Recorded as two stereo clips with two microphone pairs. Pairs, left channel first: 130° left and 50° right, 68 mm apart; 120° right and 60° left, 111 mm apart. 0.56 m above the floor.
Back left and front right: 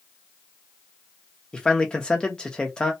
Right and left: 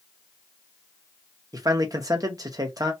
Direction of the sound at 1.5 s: 65° left.